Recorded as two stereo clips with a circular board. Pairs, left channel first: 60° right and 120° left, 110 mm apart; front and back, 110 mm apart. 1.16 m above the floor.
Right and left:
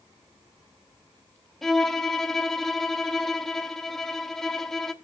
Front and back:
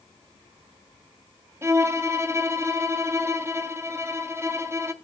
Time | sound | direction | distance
1.6 | a violin | 145° right | 0.7 m